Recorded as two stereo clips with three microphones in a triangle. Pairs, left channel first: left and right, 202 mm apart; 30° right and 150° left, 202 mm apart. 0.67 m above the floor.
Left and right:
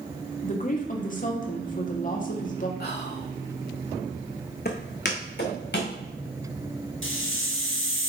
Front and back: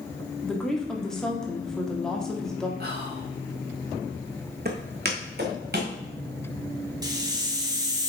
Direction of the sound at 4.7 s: 120° left.